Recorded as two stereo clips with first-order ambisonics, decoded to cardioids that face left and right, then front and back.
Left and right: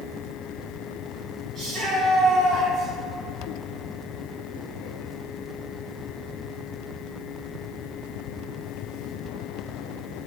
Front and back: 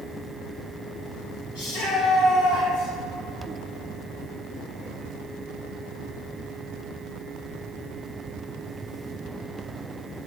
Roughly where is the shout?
Ahead.